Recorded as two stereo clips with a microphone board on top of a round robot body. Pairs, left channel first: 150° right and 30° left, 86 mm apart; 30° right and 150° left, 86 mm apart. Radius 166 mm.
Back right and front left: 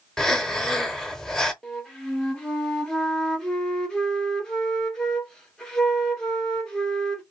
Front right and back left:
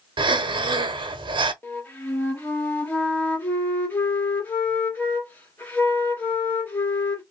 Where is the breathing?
125° left, 0.8 m.